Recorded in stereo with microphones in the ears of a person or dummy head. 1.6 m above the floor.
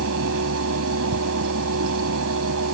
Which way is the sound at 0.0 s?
85° right.